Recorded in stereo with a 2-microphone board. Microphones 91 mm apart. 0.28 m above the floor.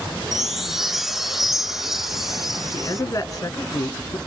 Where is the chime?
5° right (ahead or behind), 0.5 m.